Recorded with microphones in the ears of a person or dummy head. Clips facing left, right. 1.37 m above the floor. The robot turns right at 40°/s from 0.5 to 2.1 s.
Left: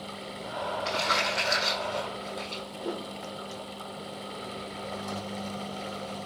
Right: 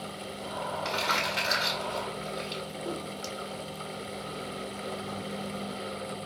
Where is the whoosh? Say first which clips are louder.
Left 3 dB; 45° left (ahead or behind), 0.7 m.